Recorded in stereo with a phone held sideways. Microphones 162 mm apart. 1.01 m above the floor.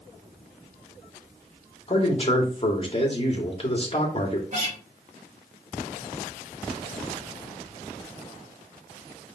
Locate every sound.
1.9 s a man speaking: 35° left (ahead or behind), 2.5 m
4.5 s a guitar: 45° right (ahead or behind), 4 m